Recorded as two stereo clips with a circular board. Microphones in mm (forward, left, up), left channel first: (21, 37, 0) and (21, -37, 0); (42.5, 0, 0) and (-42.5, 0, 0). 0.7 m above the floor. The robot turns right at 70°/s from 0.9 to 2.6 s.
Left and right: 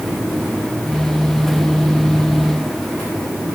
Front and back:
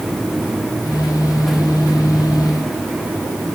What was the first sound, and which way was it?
Only background noise.